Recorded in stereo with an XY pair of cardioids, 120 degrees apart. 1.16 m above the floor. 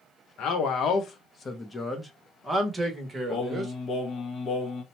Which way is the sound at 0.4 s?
70° left.